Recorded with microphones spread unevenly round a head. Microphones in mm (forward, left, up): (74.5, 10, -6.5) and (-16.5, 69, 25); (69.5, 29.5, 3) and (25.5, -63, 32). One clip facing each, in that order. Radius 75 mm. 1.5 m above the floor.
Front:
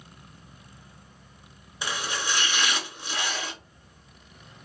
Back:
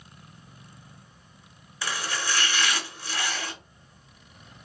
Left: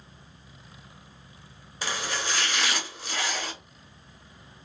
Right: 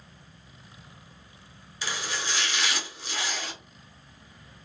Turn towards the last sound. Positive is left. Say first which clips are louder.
# even, left 2 dB
turn(degrees=50)